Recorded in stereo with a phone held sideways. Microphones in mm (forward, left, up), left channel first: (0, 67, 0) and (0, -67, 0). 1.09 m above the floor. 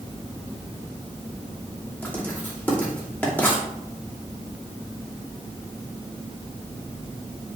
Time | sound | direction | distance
2.0 | writing | 15° left (ahead or behind) | 2.5 m